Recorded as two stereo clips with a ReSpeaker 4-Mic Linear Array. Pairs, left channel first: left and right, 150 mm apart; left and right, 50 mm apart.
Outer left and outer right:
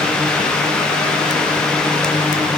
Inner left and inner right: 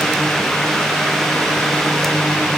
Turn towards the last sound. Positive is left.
No sound to turn to.